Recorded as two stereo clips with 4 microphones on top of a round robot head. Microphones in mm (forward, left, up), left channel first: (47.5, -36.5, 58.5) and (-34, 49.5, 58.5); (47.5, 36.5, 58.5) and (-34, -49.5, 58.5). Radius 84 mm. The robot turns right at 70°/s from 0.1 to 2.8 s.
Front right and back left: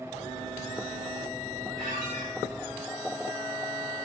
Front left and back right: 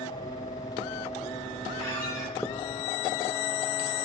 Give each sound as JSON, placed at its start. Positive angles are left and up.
{"t": 1.8, "sound": "a squeak", "azimuth_deg": 110, "distance_m": 9.5}